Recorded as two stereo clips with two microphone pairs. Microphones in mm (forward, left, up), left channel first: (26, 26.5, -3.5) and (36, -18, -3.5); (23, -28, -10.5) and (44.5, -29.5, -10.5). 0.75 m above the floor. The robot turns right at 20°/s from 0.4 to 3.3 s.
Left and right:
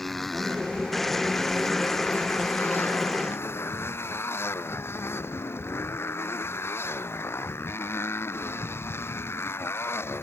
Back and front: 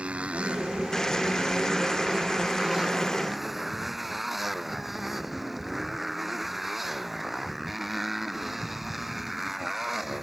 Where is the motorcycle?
15° left; by 10.2 s 75° left.